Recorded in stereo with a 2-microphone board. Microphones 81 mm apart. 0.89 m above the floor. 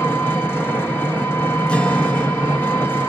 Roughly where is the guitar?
Centre.